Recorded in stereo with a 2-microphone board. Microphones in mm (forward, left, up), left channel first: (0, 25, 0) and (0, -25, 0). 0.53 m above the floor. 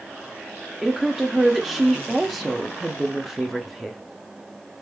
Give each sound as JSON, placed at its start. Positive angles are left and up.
{"t": 0.8, "sound": "a woman speaking", "side_deg": 0, "distance_m": 0.6}